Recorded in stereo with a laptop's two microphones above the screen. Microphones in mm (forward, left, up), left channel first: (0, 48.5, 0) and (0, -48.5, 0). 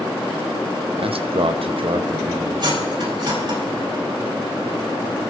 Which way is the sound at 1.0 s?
65° right (ahead or behind).